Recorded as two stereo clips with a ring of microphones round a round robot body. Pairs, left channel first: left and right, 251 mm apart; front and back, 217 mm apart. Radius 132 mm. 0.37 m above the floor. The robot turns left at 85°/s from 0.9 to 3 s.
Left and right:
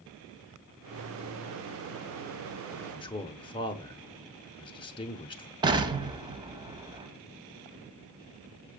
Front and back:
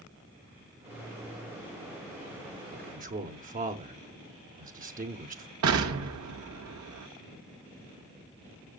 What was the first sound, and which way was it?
A man speaking, 175° left.